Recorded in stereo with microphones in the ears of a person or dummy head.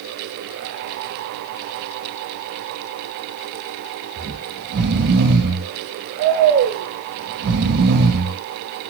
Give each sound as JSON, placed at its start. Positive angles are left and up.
{"t": 4.2, "sound": "snoring", "side_deg": -55, "distance_m": 1.4}